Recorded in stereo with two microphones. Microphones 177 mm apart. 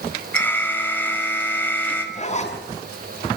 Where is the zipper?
40° left (ahead or behind), 6.5 m.